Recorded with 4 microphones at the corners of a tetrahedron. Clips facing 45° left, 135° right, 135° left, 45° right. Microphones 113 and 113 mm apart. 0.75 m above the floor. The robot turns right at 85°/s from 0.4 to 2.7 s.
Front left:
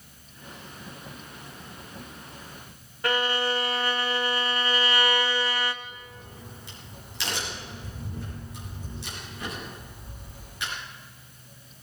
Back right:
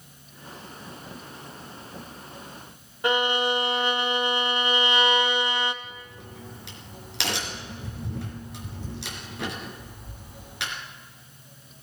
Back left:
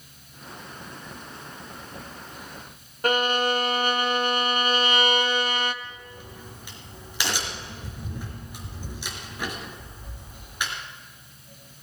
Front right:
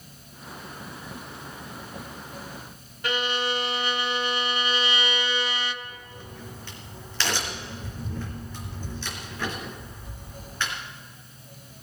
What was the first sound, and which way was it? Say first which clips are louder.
A violin: back right 3 dB, back left 5 dB; 160° left.